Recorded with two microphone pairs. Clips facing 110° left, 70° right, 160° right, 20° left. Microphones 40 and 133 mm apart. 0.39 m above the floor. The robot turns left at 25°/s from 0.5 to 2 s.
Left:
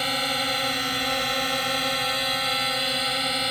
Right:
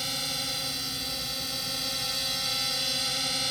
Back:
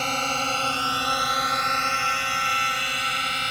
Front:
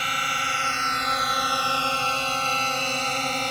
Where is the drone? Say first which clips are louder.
Left 8 dB, back 3 dB; 150° left; by 3.5 s 60° left.